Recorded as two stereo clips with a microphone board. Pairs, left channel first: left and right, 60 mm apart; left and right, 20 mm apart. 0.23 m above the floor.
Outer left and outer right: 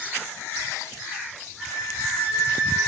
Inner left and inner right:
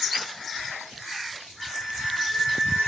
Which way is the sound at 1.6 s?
25° right (ahead or behind).